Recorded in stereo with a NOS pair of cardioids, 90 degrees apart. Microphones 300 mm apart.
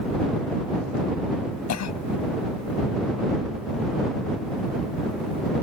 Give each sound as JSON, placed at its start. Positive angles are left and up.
{"t": 1.7, "sound": "a cough", "azimuth_deg": 65}